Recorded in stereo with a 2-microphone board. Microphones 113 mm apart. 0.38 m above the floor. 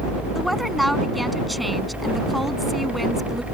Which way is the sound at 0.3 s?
Centre (ahead or behind).